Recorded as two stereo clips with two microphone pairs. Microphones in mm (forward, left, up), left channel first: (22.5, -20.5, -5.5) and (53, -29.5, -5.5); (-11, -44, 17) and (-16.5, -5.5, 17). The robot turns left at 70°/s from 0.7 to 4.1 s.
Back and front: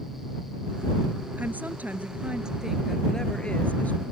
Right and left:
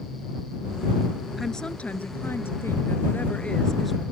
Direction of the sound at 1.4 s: 5° left.